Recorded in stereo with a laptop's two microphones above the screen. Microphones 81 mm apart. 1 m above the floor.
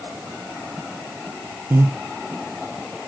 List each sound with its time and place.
1.7 s breathing: 30° right (ahead or behind), 0.6 m